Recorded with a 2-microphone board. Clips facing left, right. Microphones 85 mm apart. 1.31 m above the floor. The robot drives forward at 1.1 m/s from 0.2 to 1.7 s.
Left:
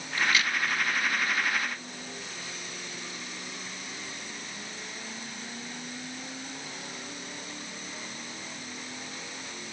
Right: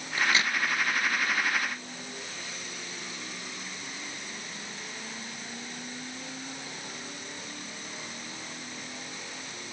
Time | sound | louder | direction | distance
0.2 | a crack | even | 25° right (ahead or behind) | ?